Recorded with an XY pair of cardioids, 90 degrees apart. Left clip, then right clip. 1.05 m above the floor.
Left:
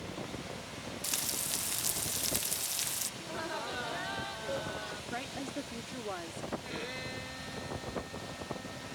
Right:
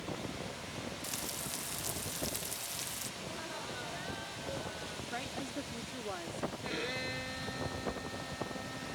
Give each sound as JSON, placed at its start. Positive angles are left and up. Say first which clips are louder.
{"t": 1.0, "sound": "frying", "louder": "left 8 dB", "azimuth_deg": 55}
{"t": 3.2, "sound": "laughter", "louder": "left 4 dB", "azimuth_deg": 55}
{"t": 5.1, "sound": "a woman speaking", "louder": "even", "azimuth_deg": 20}
{"t": 6.6, "sound": "a violin", "louder": "right 2 dB", "azimuth_deg": -25}